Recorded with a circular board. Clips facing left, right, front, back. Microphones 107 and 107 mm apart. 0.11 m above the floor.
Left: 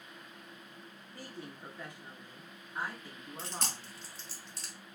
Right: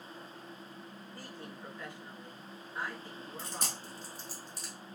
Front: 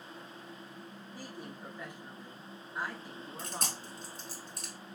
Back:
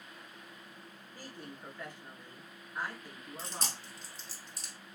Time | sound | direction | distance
1.1 | a woman speaking | 55° left | 1.1 m
3.4 | chewing | 15° right | 1.3 m